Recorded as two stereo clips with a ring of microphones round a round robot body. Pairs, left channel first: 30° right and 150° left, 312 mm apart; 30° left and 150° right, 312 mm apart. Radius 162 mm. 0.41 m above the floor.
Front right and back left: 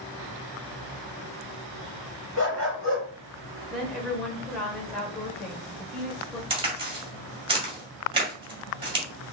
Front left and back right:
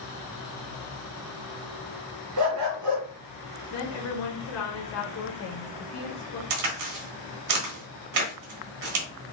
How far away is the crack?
About 1.6 m.